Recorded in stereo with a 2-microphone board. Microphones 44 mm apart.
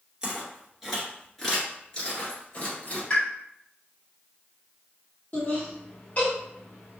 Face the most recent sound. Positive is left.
turn(degrees=30)  # may be behind; listen again after turning